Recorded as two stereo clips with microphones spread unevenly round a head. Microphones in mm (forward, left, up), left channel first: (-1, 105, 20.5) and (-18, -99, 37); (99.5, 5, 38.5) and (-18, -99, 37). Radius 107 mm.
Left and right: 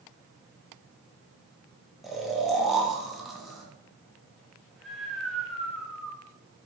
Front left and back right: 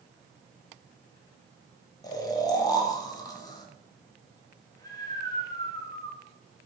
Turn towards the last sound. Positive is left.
turn(degrees=5)